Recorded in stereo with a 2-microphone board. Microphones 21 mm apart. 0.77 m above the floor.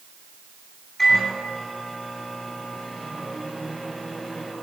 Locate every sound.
1.0 s a microwave: 15° left (ahead or behind), 9.5 m